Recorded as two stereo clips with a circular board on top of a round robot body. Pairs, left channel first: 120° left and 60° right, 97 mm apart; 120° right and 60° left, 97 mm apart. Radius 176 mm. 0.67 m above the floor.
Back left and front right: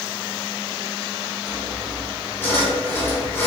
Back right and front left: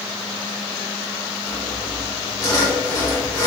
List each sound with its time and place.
1.5 s sawing: 170° right, 2.5 m